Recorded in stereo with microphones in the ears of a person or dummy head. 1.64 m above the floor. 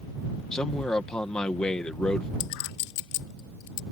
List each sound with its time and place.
0.5 s a man speaking: 5° left (ahead or behind)
2.4 s a clink: 70° left (ahead or behind)